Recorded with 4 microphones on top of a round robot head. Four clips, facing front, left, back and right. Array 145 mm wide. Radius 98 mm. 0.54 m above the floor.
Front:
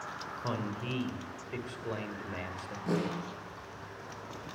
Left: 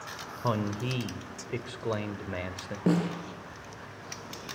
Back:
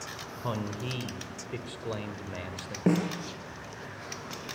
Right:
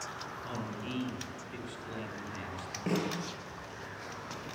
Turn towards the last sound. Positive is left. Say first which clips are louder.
# left 6 dB, back 6 dB
turn(degrees=150)